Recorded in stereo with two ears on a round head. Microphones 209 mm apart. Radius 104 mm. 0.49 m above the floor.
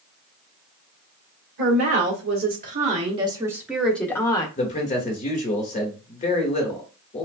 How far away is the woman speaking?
About 1.4 m.